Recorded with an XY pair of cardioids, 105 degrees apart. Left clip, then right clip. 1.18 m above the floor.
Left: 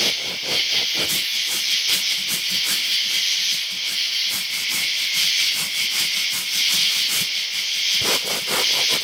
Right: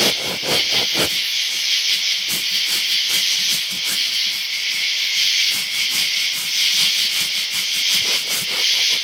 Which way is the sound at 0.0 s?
15° right.